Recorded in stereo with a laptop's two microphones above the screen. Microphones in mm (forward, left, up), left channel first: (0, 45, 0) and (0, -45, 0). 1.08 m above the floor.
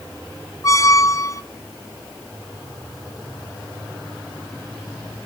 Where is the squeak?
35° left (ahead or behind), 0.7 m.